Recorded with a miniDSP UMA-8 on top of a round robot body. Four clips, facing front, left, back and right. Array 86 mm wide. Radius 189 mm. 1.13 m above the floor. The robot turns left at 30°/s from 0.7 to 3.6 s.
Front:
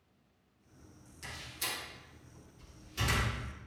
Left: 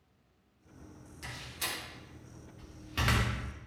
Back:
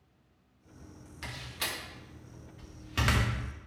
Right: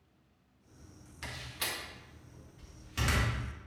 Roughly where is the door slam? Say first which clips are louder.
Right 1 dB, back 4 dB; behind right.